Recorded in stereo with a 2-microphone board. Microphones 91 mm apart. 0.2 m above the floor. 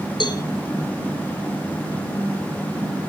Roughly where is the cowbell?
Left.